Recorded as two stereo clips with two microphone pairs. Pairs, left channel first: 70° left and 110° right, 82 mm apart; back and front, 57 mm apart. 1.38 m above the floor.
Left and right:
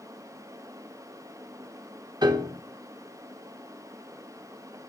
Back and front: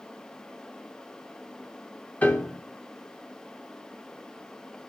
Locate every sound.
2.2 s a piano: 125° right, 1.6 m